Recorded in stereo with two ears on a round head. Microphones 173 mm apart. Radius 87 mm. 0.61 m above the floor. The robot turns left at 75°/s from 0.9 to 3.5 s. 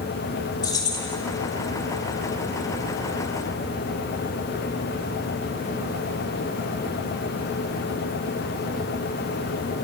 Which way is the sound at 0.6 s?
20° left (ahead or behind).